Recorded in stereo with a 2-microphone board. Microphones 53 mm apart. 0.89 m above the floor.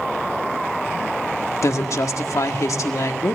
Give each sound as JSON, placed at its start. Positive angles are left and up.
{"t": 1.6, "sound": "a woman speaking", "side_deg": 75, "distance_m": 1.7}